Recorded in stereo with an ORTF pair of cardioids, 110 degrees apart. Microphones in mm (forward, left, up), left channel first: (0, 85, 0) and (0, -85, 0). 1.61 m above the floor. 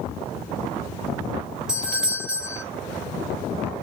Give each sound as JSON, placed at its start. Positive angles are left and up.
{"t": 1.7, "sound": "a doorbell", "azimuth_deg": -5, "distance_m": 1.1}